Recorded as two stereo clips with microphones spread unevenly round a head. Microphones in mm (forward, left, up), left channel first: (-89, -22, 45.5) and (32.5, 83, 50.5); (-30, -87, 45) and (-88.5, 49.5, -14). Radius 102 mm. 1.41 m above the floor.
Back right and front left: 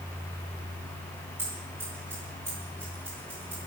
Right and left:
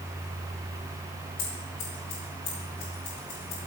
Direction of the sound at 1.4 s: 35° right.